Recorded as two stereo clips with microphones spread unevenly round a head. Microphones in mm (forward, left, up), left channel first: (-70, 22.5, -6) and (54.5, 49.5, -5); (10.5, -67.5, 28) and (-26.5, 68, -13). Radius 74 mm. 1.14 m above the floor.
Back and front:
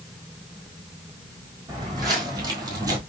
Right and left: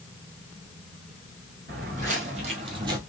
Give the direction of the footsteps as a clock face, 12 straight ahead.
10 o'clock.